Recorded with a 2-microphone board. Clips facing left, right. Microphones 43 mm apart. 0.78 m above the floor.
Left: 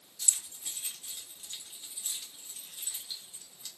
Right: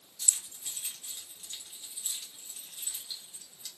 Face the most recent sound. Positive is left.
turn(degrees=5)  # may be behind; listen again after turning